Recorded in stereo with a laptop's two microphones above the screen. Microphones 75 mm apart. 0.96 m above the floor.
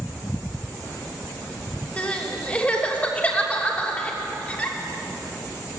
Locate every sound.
2.0 s crying: 20° left (ahead or behind), 3 m